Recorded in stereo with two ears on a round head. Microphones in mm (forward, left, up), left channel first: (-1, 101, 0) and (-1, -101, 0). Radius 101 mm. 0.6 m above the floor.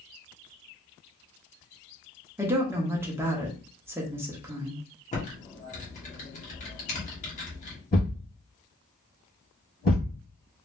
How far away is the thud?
About 2 m.